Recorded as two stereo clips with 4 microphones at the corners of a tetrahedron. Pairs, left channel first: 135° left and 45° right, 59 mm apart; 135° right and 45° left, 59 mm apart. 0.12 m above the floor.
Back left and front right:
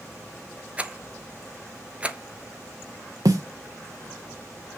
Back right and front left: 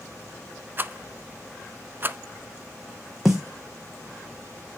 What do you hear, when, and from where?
0.8 s a rattle: 10° left, 0.5 m
3.2 s a snare drum: 40° right, 1.4 m